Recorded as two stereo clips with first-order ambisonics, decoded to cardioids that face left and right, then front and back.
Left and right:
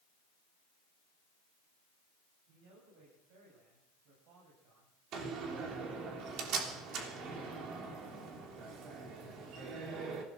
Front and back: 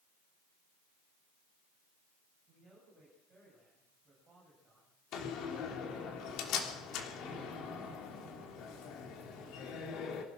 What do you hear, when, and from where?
2.5 s a man speaking: 100° right, 8 m
5.1 s a door slam: 45° right, 3.5 m